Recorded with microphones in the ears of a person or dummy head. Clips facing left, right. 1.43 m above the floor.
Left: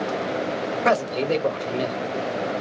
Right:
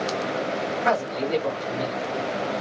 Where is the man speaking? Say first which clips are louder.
Left 4 dB; 40° left (ahead or behind), 1.0 m.